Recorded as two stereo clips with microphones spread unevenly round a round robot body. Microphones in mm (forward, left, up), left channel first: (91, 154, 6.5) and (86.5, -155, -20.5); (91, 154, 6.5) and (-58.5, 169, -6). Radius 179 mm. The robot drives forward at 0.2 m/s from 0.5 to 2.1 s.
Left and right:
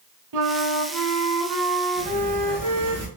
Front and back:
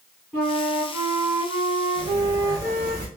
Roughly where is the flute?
Right.